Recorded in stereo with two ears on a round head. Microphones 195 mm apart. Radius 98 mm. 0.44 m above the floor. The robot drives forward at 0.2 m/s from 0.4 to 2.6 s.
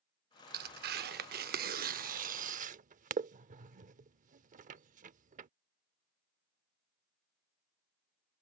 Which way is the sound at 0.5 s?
45° right (ahead or behind).